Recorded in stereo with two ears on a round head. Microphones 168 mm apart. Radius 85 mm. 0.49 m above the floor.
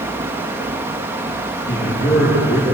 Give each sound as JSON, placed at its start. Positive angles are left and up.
{"t": 1.7, "sound": "a man speaking", "side_deg": 15, "distance_m": 8.0}